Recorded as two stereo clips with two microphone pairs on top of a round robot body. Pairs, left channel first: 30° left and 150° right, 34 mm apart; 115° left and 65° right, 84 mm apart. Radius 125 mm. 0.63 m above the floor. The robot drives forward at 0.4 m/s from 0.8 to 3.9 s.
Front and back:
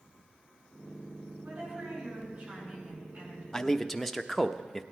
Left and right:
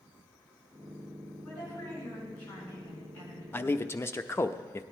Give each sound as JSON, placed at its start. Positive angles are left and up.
{"t": 1.4, "sound": "a woman speaking", "azimuth_deg": -175, "distance_m": 7.5}
{"t": 3.5, "sound": "a man speaking", "azimuth_deg": 95, "distance_m": 0.9}